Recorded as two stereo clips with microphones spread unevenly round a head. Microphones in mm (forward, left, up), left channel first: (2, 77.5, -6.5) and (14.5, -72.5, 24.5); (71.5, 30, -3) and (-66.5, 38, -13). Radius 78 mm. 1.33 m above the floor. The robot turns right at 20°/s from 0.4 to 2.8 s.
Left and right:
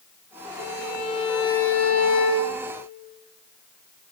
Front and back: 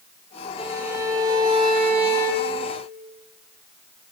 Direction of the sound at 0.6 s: 100° left.